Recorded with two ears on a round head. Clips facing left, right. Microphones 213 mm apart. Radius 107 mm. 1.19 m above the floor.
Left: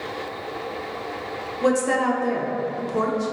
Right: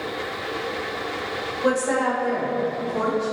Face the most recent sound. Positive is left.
turn(degrees=40)  # may be behind; listen again after turning